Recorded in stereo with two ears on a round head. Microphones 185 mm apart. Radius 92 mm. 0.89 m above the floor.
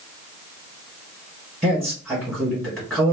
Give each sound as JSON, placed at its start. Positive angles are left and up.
{"t": 1.6, "sound": "a man speaking", "side_deg": -5, "distance_m": 1.4}